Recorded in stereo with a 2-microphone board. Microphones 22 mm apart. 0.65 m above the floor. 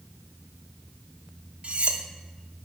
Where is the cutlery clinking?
60° right (ahead or behind), 0.7 m.